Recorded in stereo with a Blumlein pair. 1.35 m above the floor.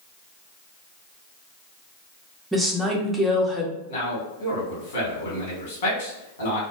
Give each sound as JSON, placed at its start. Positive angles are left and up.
{"t": 2.5, "sound": "a woman speaking", "azimuth_deg": -5, "distance_m": 0.6}
{"t": 3.9, "sound": "a man speaking", "azimuth_deg": 60, "distance_m": 1.2}